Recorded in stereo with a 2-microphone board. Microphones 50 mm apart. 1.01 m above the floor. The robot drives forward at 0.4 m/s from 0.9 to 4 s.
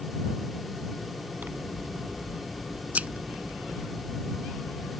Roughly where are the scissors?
Right.